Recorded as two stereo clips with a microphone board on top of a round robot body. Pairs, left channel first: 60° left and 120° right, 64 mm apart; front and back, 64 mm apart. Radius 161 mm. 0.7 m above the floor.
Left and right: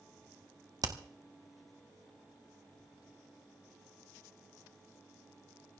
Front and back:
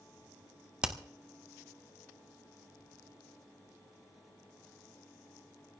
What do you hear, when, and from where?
0.8 s hammering: 105° right, 2.0 m